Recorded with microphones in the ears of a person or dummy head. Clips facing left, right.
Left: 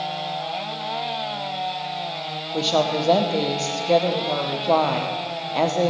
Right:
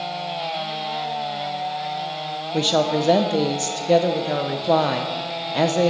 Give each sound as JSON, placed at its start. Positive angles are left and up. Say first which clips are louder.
{"t": 2.5, "sound": "a woman speaking", "louder": "right 1 dB", "side_deg": -15, "distance_m": 0.6}